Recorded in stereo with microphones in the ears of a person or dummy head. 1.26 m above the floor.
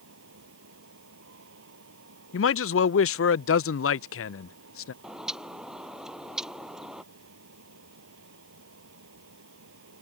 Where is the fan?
75° right (ahead or behind).